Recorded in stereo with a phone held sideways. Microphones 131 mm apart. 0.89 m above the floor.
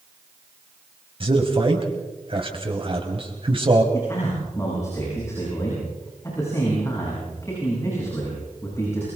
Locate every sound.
1.2 s a man speaking: 40° right (ahead or behind), 5 m
3.9 s a man speaking: 20° left (ahead or behind), 8.5 m